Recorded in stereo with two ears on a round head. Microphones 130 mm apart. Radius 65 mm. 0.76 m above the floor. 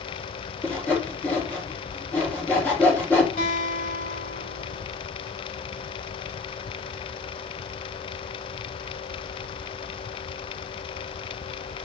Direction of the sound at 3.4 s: 50° left (ahead or behind).